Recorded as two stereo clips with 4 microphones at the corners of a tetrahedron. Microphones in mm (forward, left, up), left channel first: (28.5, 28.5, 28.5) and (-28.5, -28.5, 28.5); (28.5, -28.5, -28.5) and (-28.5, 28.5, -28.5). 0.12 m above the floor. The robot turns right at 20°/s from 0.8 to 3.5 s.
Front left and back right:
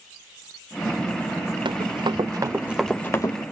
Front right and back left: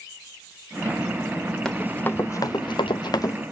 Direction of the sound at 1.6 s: 130° right.